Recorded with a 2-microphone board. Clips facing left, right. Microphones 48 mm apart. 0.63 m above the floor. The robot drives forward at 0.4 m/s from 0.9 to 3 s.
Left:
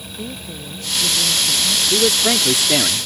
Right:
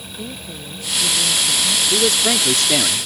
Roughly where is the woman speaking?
Centre.